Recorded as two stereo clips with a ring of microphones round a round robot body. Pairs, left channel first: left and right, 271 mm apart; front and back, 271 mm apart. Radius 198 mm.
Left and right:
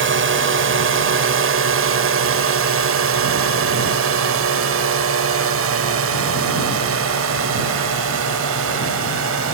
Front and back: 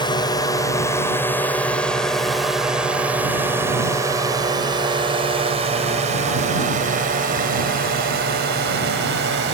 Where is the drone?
70° right; by 9.6 s 130° right.